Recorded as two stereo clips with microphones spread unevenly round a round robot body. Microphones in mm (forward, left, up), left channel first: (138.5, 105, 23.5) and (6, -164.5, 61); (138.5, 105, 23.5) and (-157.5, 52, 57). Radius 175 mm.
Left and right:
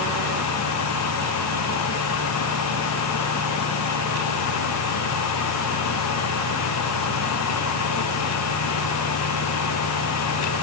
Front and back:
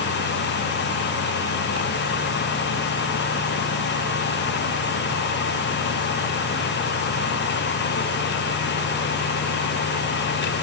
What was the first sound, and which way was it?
Only background noise.